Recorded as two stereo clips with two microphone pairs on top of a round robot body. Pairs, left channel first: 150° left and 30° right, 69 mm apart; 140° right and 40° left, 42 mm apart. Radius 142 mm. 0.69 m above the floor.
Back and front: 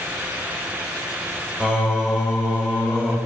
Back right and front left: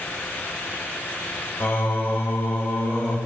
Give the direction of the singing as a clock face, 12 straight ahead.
4 o'clock.